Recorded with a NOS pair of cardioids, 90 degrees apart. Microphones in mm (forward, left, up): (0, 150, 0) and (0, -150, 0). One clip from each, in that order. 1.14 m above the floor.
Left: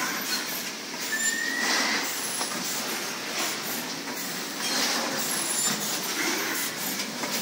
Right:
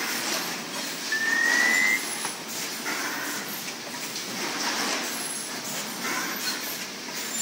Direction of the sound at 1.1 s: 50° right.